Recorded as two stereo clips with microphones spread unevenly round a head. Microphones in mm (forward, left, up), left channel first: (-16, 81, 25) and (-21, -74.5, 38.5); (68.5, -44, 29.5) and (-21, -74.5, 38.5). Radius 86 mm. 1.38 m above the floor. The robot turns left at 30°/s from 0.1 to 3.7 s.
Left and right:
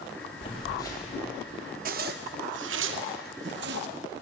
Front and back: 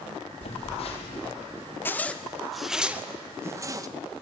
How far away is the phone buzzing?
About 4 m.